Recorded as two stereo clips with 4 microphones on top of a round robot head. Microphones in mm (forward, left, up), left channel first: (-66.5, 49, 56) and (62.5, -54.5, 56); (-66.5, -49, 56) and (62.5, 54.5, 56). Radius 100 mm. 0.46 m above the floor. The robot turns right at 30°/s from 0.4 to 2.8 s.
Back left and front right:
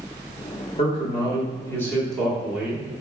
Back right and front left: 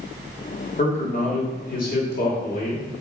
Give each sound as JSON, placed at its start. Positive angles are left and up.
{"t": 0.8, "sound": "a man speaking", "azimuth_deg": -175, "distance_m": 1.5}